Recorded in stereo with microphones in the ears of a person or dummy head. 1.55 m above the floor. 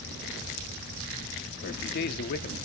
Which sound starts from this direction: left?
A man speaking, at 1.6 s.